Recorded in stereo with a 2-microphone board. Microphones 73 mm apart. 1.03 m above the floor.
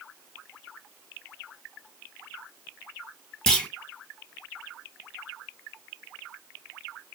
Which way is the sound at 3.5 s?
10° left (ahead or behind).